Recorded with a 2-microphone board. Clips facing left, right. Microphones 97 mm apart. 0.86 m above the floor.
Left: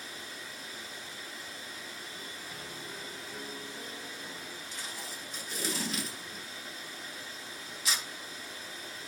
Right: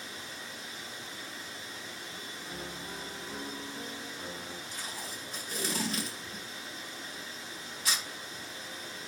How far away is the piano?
About 0.9 m.